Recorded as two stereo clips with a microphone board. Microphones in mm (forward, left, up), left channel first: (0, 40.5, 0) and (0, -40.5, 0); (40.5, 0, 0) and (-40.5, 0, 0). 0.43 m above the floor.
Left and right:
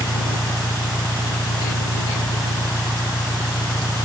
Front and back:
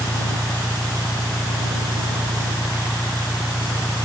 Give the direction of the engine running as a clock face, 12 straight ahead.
10 o'clock.